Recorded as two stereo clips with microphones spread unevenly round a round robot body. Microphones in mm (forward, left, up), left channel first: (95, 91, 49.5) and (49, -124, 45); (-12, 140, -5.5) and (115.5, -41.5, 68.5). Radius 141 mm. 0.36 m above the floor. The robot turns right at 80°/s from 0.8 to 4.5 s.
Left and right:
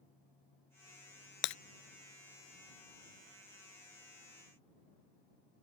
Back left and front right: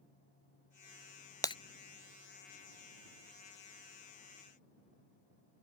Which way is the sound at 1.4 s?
45° left.